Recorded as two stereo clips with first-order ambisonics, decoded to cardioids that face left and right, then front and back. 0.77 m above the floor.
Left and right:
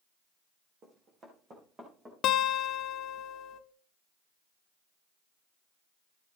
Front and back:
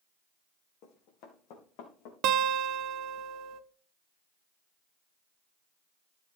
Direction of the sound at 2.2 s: 140° left.